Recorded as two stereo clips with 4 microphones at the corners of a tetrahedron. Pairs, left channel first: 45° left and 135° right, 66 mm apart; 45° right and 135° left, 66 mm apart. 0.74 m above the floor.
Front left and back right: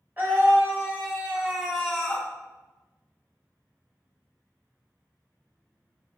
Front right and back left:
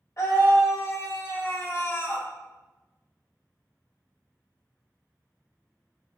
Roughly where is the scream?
Right.